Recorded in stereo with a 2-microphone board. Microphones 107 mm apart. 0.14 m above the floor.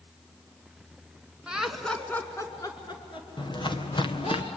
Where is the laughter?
10° right (ahead or behind), 2 m; by 4.4 s 65° left (ahead or behind), 4 m.